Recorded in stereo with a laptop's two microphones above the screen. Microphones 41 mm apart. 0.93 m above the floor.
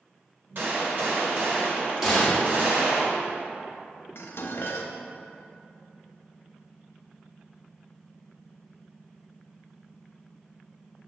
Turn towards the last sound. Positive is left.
turn(degrees=65)  # may be behind; listen again after turning